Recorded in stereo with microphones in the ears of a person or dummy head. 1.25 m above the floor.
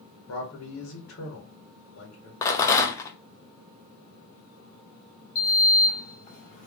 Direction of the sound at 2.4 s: 20° left (ahead or behind).